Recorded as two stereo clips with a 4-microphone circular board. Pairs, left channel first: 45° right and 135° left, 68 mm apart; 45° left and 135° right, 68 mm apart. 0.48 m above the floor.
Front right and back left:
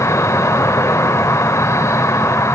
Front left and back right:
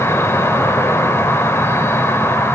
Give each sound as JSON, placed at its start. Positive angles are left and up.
{"t": 0.0, "sound": "an insect", "azimuth_deg": -5, "distance_m": 1.3}